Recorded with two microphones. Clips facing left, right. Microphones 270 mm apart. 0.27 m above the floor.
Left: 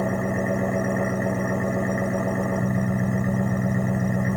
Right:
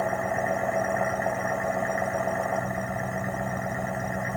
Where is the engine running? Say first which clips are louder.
Left 5 dB; 45° left (ahead or behind).